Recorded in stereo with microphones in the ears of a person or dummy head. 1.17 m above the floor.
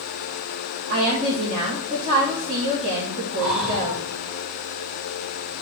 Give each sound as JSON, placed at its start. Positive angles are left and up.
{"t": 0.9, "sound": "a woman speaking", "side_deg": -40, "distance_m": 2.5}
{"t": 3.4, "sound": "breathing", "side_deg": -5, "distance_m": 2.0}